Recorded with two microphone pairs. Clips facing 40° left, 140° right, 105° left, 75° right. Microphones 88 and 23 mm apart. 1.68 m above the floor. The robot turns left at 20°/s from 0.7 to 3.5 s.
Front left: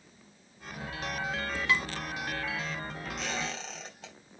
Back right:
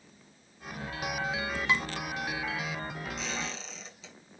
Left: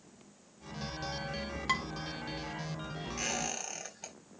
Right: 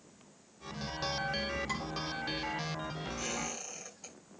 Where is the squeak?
80° left, 4.5 m; by 4.1 s 75° left, 4.5 m.